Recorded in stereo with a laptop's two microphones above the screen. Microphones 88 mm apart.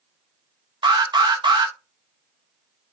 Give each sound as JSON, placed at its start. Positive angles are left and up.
{"t": 0.8, "sound": "an alarm", "side_deg": -55, "distance_m": 0.5}